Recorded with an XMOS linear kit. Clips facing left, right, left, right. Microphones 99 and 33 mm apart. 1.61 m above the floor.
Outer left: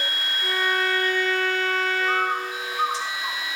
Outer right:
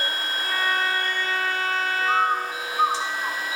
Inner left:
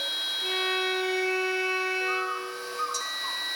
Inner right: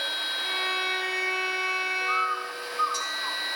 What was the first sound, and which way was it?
A violin, 5° right (ahead or behind).